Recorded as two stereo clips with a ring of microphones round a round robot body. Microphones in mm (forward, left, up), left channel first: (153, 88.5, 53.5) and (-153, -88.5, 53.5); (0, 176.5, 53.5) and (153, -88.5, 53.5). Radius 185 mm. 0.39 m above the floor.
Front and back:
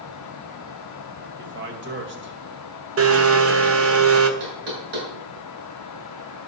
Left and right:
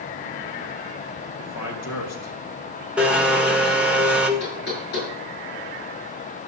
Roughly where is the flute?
I don't hear a flute.